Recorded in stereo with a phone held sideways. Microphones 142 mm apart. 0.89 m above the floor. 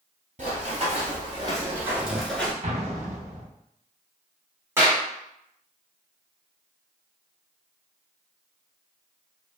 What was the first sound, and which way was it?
Running footsteps, 50° right (ahead or behind).